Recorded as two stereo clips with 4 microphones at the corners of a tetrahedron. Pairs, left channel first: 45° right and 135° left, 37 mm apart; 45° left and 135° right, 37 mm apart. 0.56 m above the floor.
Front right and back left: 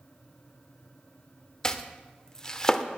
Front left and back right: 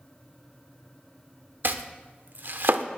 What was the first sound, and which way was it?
Chopping, 120° right.